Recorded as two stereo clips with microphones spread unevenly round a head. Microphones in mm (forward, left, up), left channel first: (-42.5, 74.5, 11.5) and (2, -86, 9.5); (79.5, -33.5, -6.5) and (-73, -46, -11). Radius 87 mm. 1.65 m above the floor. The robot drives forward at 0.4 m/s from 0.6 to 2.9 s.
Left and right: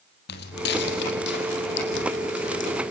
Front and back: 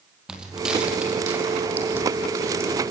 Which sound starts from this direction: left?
Footsteps, at 0.3 s.